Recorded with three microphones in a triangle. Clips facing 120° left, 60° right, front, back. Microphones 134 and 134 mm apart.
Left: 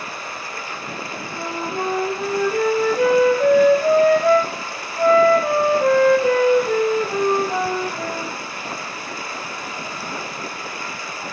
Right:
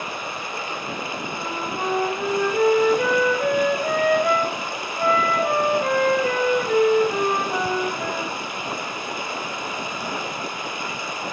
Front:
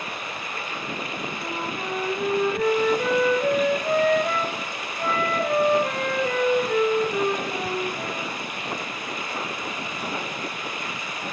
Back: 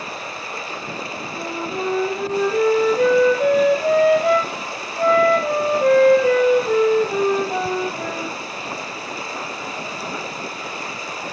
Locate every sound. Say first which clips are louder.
0.0 s running water: right 1 dB, back 2 dB; 130° right, 1.6 m
1.4 s a flute: left 5 dB, back 9 dB; straight behind, 2 m